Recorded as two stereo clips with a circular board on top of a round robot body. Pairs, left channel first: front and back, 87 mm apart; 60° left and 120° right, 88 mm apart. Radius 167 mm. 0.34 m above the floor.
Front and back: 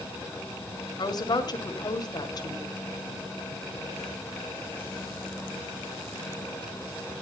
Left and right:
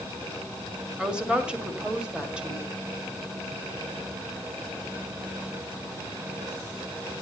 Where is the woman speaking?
40° right, 2 m.